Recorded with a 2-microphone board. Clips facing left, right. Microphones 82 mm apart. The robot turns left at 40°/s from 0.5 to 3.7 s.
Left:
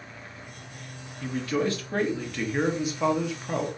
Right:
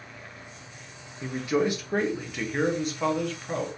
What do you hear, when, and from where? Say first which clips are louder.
1.2 s a man speaking: right 1 dB; 20° right (ahead or behind), 0.9 m; by 3.7 s 15° left (ahead or behind), 0.9 m